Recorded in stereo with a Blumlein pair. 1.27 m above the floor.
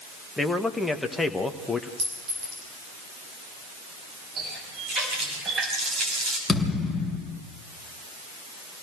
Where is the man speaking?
5° left, 1.7 m.